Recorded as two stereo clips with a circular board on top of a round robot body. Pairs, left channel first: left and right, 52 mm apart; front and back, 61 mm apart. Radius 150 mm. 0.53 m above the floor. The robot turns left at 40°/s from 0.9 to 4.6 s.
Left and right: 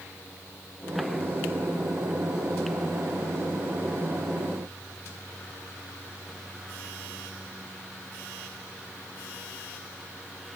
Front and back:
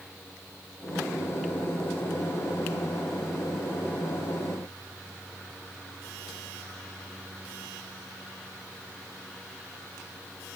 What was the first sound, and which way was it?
Only background noise.